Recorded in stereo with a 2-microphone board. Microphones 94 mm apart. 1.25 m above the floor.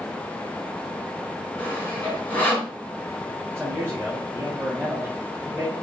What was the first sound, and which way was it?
Sawing, 20° left (ahead or behind).